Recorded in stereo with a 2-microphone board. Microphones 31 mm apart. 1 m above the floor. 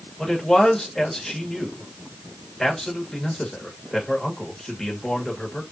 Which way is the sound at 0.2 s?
10° left (ahead or behind).